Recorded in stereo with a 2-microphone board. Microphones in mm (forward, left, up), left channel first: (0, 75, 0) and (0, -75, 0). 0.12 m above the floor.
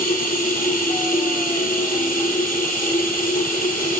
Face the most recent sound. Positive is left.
turn(degrees=65)  # may be behind; listen again after turning